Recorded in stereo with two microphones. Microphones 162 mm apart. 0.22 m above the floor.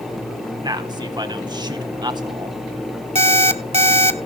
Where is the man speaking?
25° right (ahead or behind), 1.2 m.